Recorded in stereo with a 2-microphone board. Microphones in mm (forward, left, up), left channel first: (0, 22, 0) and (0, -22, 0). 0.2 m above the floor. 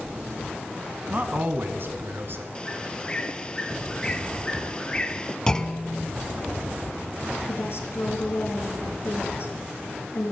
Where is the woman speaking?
60° left (ahead or behind), 3.5 m.